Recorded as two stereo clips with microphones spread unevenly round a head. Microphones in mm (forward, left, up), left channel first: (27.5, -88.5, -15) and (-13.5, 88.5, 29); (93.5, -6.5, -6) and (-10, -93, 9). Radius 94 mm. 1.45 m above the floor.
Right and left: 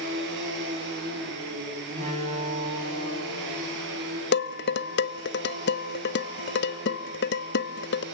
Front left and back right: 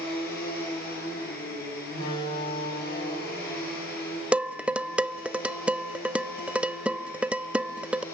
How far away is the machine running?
About 7 m.